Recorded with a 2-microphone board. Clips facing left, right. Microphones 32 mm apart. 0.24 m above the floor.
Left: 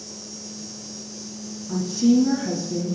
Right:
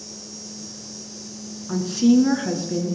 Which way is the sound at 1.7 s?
60° right (ahead or behind).